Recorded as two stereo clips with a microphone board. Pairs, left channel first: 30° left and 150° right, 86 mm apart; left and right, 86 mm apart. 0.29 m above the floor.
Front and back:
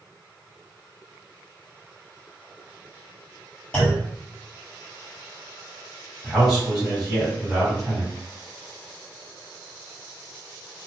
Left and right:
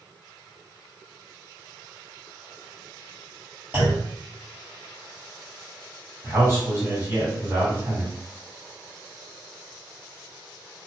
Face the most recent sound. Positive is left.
turn(degrees=-60)